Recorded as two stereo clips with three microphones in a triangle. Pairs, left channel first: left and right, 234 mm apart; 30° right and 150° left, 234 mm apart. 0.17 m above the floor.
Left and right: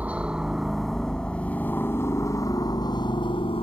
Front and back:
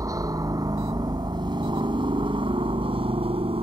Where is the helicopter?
165° right; by 3.6 s 120° left.